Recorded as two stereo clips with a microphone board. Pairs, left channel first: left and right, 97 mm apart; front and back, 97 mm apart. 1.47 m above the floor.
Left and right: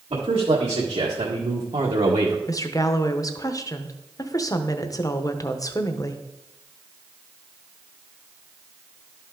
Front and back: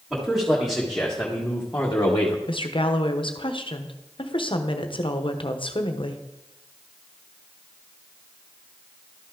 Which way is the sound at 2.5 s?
35° left.